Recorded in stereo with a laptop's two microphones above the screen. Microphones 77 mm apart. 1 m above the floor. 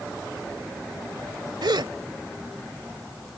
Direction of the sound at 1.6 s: 75° right (ahead or behind).